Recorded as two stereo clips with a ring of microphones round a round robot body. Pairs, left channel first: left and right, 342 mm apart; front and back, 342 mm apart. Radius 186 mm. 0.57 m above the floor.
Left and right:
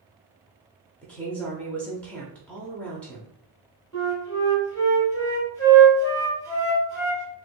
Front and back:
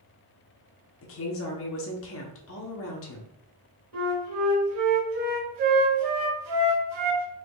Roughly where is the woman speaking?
Ahead.